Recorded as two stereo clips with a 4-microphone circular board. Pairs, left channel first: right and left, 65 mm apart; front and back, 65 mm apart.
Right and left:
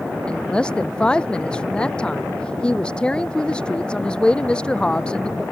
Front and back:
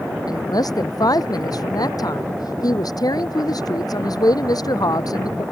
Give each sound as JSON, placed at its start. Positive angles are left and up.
{"t": 0.3, "sound": "a woman speaking", "azimuth_deg": -15}